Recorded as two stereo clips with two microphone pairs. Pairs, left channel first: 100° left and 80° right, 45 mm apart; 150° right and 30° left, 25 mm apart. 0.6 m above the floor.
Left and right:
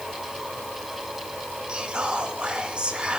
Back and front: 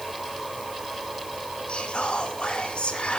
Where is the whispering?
145° right, 1.1 m.